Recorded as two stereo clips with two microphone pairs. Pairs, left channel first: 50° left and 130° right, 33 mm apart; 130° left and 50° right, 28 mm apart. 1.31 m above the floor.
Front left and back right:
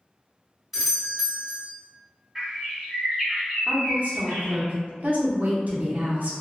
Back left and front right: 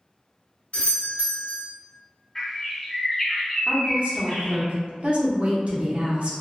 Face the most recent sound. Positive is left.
turn(degrees=-90)